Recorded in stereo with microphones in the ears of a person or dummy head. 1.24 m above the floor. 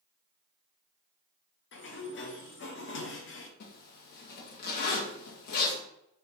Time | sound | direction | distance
1.7 | a sliding door | 45° left (ahead or behind) | 0.5 m
3.6 | a zipper | 55° left (ahead or behind) | 0.7 m